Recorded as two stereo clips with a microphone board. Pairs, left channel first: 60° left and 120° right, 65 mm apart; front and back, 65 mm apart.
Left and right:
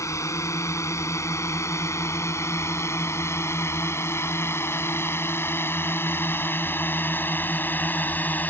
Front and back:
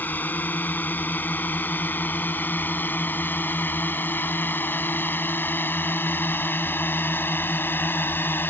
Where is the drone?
50° left; by 8.5 s 20° left.